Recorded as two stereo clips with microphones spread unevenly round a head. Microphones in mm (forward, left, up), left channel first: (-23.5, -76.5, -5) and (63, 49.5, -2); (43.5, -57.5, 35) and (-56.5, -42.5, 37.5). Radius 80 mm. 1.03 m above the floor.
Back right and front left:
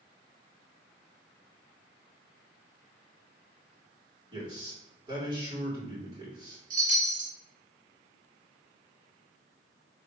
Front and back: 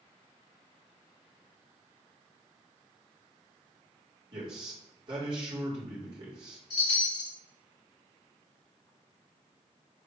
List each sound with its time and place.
4.3 s a man speaking: 120° left, 3 m
6.7 s a chime: 20° left, 2.5 m